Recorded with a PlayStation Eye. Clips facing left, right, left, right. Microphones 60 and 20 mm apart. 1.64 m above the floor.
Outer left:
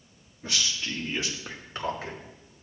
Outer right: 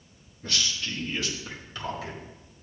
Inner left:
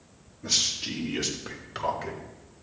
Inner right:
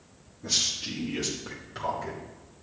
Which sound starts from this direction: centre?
A man speaking, at 0.4 s.